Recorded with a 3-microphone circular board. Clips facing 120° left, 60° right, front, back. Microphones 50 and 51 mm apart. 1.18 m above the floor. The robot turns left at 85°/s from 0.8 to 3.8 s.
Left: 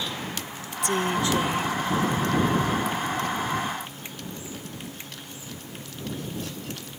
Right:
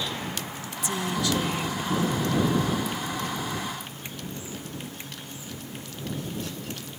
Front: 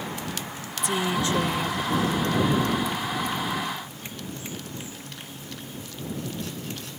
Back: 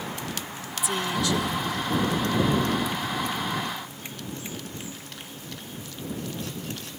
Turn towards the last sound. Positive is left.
turn(degrees=-155)